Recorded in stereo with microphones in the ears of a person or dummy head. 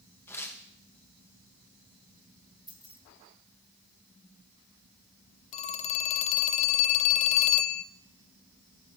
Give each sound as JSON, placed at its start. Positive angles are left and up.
{"t": 0.3, "sound": "tearing paper", "side_deg": 15, "distance_m": 1.6}
{"t": 2.7, "sound": "keys jangling", "side_deg": -5, "distance_m": 4.0}
{"t": 5.5, "sound": "a phone ringing", "side_deg": 35, "distance_m": 0.7}